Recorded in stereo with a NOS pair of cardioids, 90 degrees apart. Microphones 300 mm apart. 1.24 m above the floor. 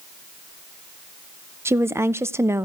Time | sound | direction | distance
1.6 | a woman speaking | 10° right | 0.7 m